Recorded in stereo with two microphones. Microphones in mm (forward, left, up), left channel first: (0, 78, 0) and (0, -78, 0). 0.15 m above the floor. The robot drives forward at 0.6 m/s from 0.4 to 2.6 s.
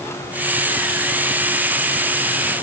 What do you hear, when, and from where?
Only background noise.